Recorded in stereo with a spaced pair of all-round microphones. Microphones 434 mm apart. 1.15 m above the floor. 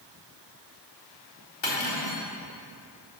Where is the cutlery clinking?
80° left, 1.8 m.